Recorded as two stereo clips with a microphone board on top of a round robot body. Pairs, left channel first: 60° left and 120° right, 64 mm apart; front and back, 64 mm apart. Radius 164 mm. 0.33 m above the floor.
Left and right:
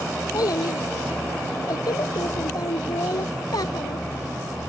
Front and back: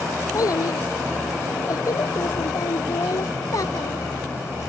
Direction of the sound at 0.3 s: 35° left.